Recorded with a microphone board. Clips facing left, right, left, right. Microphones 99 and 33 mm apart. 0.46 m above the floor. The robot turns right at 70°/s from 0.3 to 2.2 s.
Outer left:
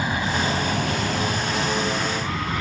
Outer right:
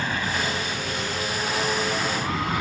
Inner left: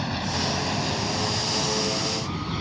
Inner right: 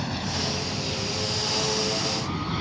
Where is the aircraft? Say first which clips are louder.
Outer left 3 dB, inner left 2 dB; 15° left (ahead or behind); by 2.6 s 10° right (ahead or behind).